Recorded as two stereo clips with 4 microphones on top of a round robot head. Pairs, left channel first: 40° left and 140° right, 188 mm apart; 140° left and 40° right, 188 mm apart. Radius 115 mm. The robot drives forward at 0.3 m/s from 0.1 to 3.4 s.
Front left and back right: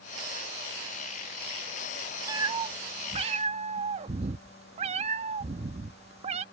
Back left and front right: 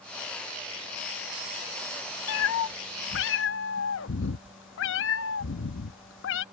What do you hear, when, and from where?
2.3 s a cat meowing: 150° left; by 6.5 s 165° left